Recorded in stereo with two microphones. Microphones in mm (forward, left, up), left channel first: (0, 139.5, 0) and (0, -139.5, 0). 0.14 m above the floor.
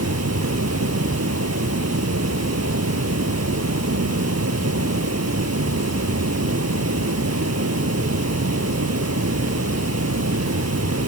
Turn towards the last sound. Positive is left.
turn(degrees=-65)  # may be behind; listen again after turning